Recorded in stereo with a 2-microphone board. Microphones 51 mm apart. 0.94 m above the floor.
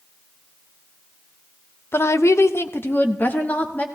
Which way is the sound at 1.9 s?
50° left (ahead or behind).